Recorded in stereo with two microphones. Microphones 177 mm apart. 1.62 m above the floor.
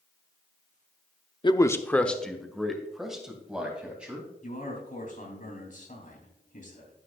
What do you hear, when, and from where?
1.4 s a man speaking: 30° left (ahead or behind), 0.5 m; by 4.3 s 5° right (ahead or behind), 3.5 m
4.4 s a man speaking: 50° left (ahead or behind), 3.5 m